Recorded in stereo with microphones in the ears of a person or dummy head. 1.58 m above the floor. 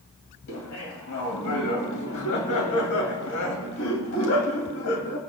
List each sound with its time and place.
0.5 s laughter: 70° left (ahead or behind), 3 m